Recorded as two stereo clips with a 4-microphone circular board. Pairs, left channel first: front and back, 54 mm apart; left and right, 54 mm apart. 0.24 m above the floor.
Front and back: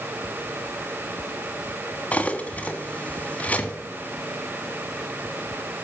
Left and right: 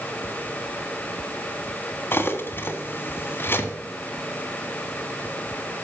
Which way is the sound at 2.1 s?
55° left.